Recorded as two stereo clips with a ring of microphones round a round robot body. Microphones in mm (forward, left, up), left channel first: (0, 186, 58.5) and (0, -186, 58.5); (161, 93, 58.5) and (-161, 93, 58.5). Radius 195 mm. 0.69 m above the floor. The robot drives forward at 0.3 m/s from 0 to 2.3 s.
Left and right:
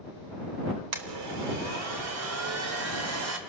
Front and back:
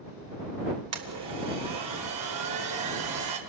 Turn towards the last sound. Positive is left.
turn(degrees=-140)